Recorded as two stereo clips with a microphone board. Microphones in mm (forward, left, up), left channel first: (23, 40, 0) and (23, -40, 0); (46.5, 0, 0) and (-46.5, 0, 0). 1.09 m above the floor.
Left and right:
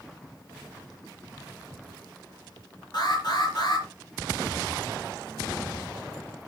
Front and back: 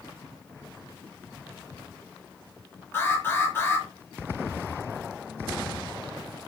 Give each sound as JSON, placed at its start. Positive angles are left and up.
{"t": 2.9, "sound": "an alarm", "azimuth_deg": 65, "distance_m": 6.0}